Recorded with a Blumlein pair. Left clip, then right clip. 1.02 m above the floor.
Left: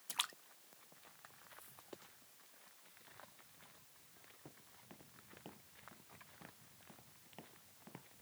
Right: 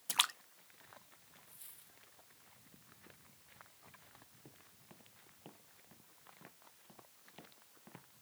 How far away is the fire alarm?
I don't hear a fire alarm.